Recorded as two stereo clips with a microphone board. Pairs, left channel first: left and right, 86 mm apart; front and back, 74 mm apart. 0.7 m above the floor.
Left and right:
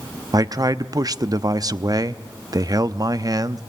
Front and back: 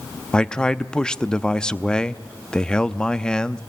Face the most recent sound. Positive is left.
turn(degrees=-75)